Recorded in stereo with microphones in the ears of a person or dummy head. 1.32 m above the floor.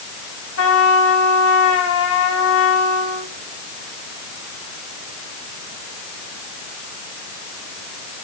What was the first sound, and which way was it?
A trumpet, 70° left (ahead or behind).